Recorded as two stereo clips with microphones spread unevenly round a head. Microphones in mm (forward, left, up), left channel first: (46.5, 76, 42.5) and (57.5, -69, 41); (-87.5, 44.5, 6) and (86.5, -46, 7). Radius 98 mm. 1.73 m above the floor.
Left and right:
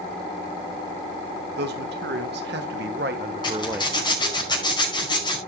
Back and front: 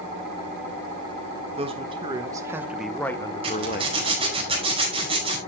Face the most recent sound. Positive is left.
turn(degrees=35)